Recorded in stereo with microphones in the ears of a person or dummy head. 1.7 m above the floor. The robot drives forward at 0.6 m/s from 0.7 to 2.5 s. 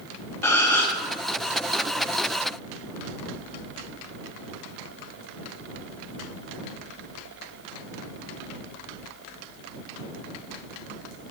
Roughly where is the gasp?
Centre.